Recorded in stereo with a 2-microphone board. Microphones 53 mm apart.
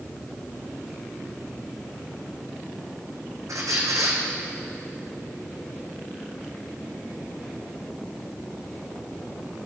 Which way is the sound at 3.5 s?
80° right.